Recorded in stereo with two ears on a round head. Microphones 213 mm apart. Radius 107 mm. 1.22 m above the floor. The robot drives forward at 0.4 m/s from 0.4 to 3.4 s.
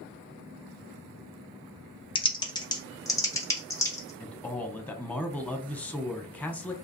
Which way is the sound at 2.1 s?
20° left (ahead or behind).